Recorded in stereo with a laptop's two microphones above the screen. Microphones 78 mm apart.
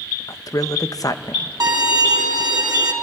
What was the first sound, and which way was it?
A man speaking, 50° left (ahead or behind).